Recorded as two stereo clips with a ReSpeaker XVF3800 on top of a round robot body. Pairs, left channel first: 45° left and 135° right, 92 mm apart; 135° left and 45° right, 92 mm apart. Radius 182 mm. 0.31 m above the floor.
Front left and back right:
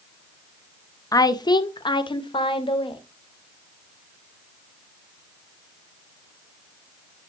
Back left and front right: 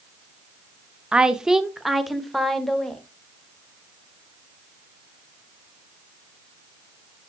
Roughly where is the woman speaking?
Ahead left.